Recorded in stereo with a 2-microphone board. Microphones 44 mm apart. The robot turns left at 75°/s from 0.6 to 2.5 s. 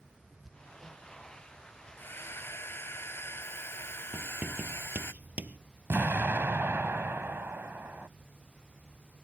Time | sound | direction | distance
0.4 | hammering | 10° right (ahead or behind) | ?
2.0 | a hair dryer | 120° left | ?
4.1 | writing | 40° right (ahead or behind) | ?
5.9 | an explosion | 65° right (ahead or behind) | ?